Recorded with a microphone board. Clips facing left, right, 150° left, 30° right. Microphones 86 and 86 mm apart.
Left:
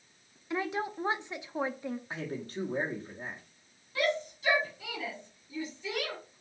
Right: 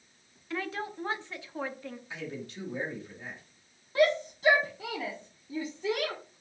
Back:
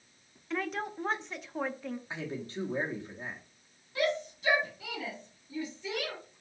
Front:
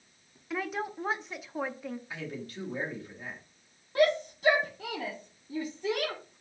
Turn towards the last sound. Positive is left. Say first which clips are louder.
# right 6 dB, front 6 dB
turn(degrees=-50)